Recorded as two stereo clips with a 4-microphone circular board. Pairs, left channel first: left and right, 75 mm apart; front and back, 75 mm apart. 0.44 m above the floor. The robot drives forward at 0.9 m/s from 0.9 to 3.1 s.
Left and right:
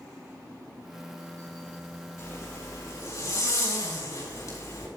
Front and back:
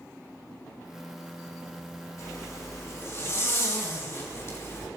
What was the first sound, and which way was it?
A zipper, 40° left.